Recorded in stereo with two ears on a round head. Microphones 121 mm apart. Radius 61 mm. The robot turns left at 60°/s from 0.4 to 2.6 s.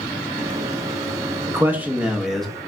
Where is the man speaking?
20° right (ahead or behind), 0.8 m; by 2.5 s centre (ahead or behind), 0.8 m.